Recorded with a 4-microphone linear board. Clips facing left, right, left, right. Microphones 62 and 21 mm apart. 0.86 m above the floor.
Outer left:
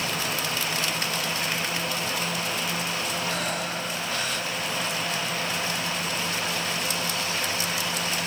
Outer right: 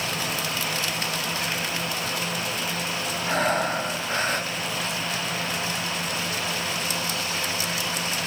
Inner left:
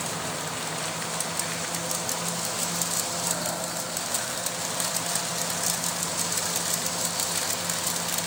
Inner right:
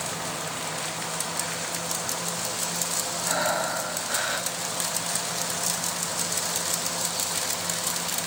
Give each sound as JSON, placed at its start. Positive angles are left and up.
{"t": 3.3, "sound": "breathing", "side_deg": -40, "distance_m": 1.5}